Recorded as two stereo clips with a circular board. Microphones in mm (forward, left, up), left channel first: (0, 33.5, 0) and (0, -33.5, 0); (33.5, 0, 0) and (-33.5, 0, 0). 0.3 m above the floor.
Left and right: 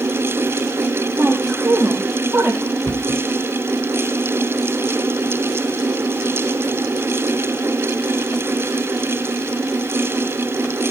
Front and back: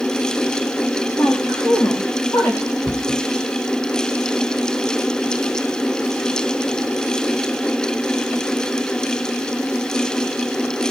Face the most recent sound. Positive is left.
turn(degrees=110)